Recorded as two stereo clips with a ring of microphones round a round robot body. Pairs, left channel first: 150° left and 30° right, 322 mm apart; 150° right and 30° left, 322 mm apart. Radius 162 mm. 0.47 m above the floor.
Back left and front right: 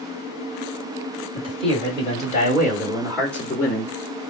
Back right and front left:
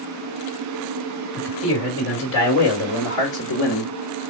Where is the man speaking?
100° right, 2 m; by 4.2 s 150° right, 1.2 m.